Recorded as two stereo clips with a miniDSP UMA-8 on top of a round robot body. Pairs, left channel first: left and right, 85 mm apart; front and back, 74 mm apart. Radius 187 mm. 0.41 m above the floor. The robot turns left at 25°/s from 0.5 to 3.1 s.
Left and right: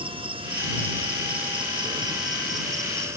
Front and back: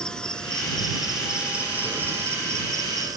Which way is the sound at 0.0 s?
80° right.